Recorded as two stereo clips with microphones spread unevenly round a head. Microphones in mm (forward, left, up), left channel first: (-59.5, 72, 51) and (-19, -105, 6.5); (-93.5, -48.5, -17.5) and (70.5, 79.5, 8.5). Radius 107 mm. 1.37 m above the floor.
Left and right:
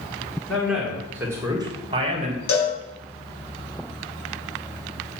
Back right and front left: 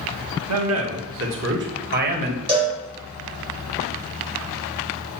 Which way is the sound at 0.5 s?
15° left.